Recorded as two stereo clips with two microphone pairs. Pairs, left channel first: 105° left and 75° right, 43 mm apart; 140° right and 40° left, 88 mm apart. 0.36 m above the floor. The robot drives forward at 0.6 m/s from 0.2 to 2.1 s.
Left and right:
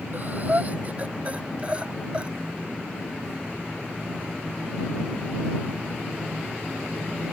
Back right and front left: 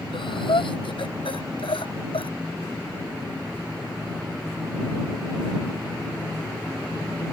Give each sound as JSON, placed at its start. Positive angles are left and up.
{"t": 0.1, "sound": "breathing", "azimuth_deg": -120}